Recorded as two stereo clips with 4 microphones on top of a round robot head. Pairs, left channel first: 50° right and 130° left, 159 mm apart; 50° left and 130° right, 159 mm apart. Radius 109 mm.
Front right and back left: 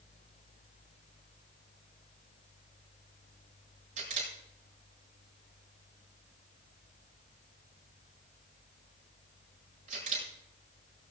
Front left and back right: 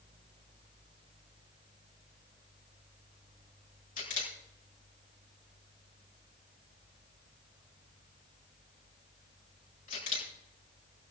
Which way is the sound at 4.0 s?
85° left.